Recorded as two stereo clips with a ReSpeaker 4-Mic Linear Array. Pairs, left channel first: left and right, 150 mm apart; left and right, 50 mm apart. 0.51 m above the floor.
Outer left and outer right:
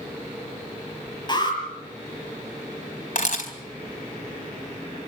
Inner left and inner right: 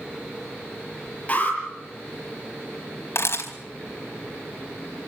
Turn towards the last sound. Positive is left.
turn(degrees=65)  # may be behind; listen again after turning